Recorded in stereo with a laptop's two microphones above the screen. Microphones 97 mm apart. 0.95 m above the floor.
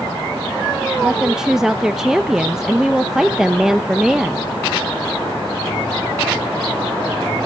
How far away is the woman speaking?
About 0.6 m.